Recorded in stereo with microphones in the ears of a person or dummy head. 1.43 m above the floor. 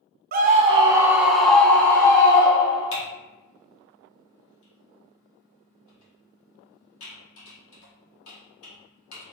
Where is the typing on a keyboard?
75° left (ahead or behind), 1.9 m.